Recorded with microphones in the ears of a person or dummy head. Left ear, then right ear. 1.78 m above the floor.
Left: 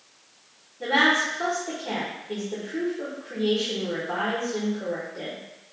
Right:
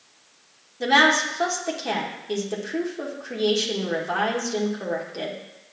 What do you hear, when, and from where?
0.8 s a woman speaking: 70° right (ahead or behind), 1.2 m